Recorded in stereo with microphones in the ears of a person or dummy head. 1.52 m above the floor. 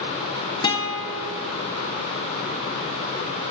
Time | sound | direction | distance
0.6 | a guitar | 20° left (ahead or behind) | 1.4 m